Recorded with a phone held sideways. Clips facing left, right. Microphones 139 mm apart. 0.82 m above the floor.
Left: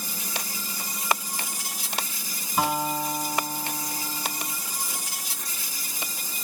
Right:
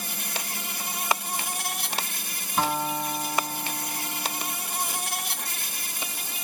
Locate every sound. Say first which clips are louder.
0.0 s an insect: even; 65° right (ahead or behind)
2.6 s a guitar: left 1 dB; 5° left (ahead or behind)